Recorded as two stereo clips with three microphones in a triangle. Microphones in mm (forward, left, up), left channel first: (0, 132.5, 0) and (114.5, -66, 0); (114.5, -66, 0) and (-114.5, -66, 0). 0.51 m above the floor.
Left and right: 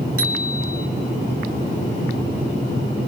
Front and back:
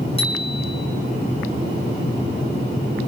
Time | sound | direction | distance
0.2 | a bicycle bell | 65° right | 4.5 m